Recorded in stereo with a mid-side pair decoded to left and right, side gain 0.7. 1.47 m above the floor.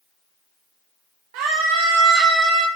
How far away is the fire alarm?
I don't hear a fire alarm.